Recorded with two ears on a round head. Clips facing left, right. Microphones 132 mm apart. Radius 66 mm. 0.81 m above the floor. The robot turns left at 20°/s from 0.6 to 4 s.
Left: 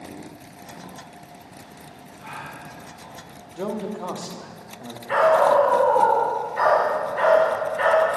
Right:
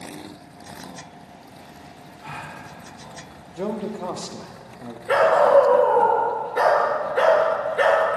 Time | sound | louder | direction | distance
2.2 | a gasp | right 1 dB | 50° right (ahead or behind) | 2.0 m
3.6 | a man speaking | right 1 dB | 5° right (ahead or behind) | 0.9 m
5.1 | a dog barking | right 2 dB | 85° right | 5 m